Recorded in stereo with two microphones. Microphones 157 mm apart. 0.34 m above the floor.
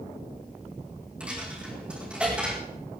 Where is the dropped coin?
5° right (ahead or behind), 4.5 m.